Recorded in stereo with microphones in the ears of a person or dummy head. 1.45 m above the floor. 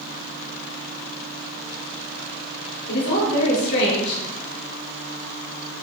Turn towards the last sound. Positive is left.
turn(degrees=70)  # may be behind; listen again after turning